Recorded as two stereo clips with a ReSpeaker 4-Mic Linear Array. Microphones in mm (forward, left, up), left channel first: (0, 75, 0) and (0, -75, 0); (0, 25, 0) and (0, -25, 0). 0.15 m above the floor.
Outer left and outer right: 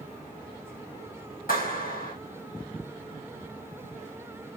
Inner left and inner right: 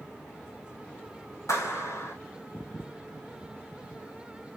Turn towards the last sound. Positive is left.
turn(degrees=70)  # may be behind; listen again after turning